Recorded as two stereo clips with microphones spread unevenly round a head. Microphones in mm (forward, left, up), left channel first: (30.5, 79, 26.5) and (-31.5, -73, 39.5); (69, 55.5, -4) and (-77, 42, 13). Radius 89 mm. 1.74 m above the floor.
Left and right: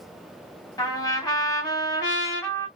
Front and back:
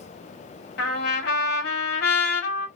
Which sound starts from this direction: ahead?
A trumpet, at 0.8 s.